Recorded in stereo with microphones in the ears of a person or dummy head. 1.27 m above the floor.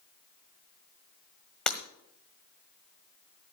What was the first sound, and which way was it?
Breaking glass, 5° left (ahead or behind).